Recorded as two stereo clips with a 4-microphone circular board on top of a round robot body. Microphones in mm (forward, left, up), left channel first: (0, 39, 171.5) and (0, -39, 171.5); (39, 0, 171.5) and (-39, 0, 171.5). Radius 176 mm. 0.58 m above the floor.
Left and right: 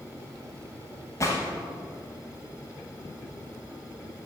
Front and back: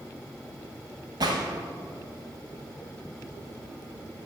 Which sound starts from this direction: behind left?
A gunshot, at 1.2 s.